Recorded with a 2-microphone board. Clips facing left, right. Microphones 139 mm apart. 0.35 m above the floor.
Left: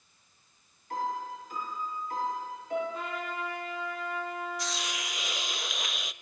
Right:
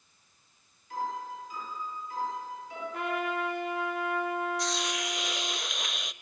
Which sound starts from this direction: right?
A trumpet, at 2.9 s.